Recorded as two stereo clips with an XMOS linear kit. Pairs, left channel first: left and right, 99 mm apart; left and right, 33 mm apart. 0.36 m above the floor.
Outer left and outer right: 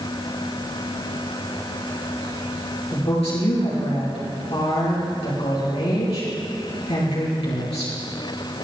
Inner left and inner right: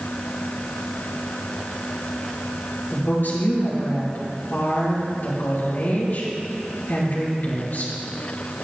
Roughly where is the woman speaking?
Left.